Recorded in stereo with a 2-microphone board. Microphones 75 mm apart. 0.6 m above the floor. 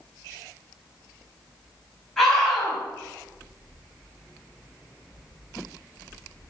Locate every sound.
2.2 s a scream: 5° left (ahead or behind), 4.5 m